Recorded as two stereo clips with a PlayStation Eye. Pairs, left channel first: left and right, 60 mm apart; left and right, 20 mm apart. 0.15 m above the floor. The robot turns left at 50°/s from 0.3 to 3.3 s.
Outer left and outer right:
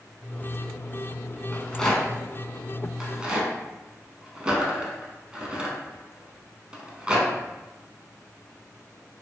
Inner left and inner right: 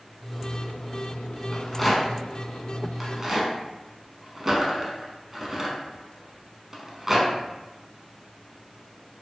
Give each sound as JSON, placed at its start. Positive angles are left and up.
{"t": 1.5, "sound": "a rattle", "side_deg": 15, "distance_m": 0.7}